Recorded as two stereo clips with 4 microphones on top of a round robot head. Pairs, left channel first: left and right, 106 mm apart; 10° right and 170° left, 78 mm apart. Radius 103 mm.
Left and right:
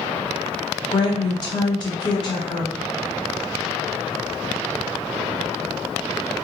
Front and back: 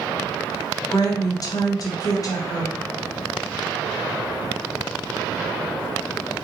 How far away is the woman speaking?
About 0.7 m.